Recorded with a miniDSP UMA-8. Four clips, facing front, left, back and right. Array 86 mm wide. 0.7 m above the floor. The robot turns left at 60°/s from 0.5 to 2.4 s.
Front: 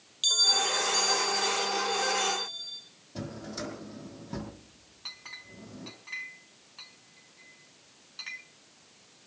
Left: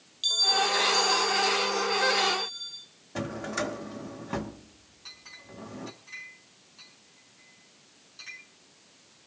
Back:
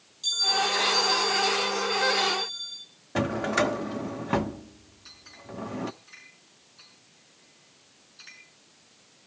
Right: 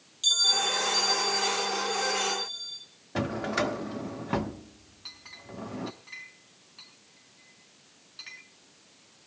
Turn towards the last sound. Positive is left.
turn(degrees=-15)